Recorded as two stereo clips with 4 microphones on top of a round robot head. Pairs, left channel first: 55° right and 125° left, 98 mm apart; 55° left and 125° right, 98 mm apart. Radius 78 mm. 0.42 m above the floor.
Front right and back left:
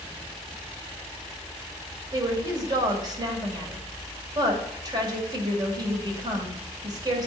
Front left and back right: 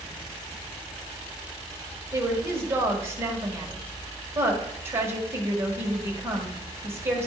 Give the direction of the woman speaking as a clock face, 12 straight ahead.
6 o'clock.